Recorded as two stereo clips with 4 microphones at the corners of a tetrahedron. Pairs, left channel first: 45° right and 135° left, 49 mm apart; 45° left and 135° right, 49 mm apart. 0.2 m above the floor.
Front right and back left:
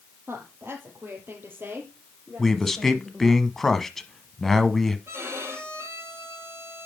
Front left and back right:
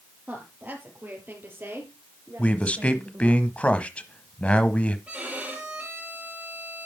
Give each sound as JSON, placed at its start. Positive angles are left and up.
{"t": 0.3, "sound": "a woman speaking", "azimuth_deg": 170, "distance_m": 4.0}
{"t": 2.4, "sound": "a man speaking", "azimuth_deg": 30, "distance_m": 1.0}
{"t": 5.1, "sound": "a violin", "azimuth_deg": 165, "distance_m": 5.0}